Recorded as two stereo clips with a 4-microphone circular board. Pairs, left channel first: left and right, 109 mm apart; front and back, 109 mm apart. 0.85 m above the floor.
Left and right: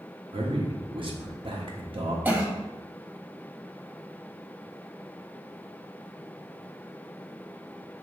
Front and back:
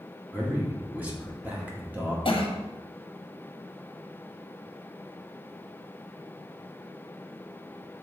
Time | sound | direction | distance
0.3 | a man speaking | 110° right | 1.5 m
2.2 | a cough | 15° right | 1.1 m